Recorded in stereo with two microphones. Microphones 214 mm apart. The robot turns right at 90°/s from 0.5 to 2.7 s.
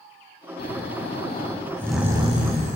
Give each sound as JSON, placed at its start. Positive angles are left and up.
{"t": 0.6, "sound": "snoring", "azimuth_deg": 60, "distance_m": 0.9}